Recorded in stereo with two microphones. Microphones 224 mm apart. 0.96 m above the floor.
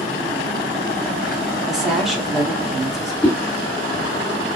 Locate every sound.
1.7 s a woman speaking: centre (ahead or behind), 2.0 m
3.2 s a whoosh: 5° left (ahead or behind), 1.6 m